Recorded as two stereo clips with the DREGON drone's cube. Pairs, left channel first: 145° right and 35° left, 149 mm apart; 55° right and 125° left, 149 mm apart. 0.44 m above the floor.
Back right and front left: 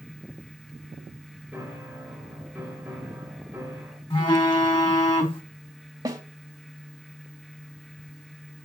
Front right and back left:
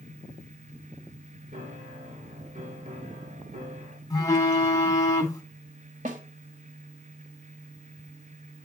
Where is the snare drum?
100° left, 1.8 m.